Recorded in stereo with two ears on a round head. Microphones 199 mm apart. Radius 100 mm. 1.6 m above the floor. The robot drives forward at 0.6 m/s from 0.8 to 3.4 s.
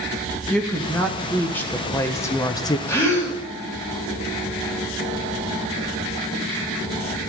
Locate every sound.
0.5 s a woman speaking: 5° left (ahead or behind), 1.7 m; by 2.8 s 20° left (ahead or behind), 0.6 m
2.9 s a gasp: 10° left (ahead or behind), 4 m; by 3.4 s 15° left (ahead or behind), 4 m